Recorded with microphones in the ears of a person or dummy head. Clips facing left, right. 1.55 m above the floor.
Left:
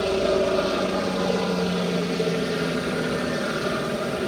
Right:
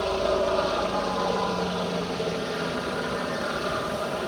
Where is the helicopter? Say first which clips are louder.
Left 3 dB; 25° left (ahead or behind).